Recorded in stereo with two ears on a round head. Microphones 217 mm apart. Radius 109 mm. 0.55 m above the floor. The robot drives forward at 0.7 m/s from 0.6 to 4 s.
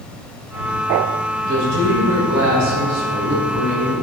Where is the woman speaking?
70° right (ahead or behind), 3 m; by 4.0 s 45° right (ahead or behind), 3.5 m.